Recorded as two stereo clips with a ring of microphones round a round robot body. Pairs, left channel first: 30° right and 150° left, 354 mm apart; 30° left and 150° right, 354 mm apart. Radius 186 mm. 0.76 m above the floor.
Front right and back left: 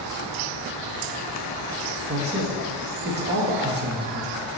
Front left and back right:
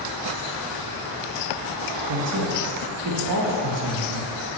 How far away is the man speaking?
About 1.1 m.